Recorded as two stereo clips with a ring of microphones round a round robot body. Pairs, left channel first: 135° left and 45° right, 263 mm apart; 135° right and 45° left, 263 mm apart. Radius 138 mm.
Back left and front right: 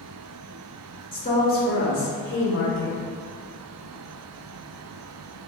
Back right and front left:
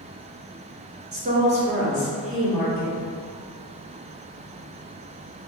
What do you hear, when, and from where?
1.1 s a woman speaking: 75° left, 1.0 m; by 3.0 s 145° left, 1.6 m